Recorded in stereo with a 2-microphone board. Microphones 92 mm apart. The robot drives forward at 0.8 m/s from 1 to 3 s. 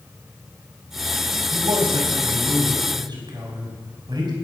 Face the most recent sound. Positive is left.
turn(degrees=-60)  # may be behind; listen again after turning